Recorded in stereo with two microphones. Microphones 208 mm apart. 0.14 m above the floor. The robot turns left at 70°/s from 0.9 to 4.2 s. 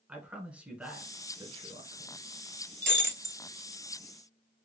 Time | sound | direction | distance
0.1 | a man speaking | 5° right (ahead or behind) | 1.4 m
2.8 | breaking glass | 70° right | 0.6 m